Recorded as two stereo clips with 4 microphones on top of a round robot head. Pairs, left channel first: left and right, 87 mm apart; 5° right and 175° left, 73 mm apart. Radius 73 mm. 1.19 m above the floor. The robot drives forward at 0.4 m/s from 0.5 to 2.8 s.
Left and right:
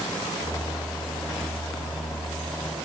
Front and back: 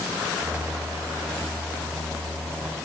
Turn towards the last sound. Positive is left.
No sound to turn to.